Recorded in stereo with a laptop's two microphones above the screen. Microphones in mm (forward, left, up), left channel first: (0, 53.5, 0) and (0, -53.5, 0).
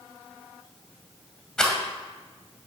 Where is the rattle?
5° left (ahead or behind), 2 m.